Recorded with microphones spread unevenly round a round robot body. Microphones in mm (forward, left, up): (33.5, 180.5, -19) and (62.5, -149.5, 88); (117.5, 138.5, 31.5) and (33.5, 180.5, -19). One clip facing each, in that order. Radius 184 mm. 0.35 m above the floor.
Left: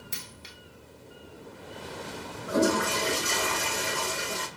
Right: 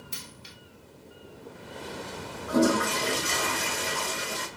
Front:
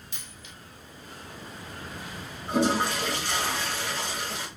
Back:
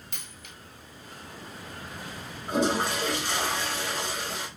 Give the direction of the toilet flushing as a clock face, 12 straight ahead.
7 o'clock.